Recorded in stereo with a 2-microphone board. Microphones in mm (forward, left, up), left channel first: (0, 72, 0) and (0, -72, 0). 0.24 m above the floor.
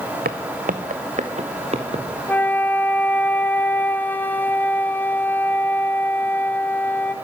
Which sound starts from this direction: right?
Footsteps, at 0.2 s.